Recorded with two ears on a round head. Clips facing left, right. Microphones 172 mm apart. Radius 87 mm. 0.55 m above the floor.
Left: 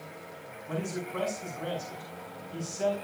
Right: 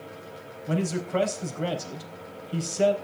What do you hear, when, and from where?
0.7 s a man speaking: 70° right (ahead or behind), 3.5 m